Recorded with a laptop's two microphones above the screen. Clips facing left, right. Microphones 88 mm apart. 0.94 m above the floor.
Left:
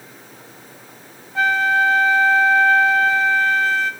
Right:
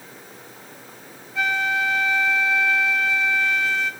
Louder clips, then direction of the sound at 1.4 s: Left 6 dB; 40° left (ahead or behind).